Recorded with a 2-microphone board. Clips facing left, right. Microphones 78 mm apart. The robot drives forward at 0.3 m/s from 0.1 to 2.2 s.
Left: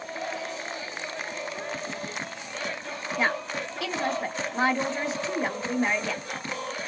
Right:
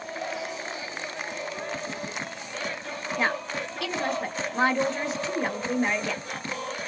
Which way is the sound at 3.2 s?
5° left (ahead or behind).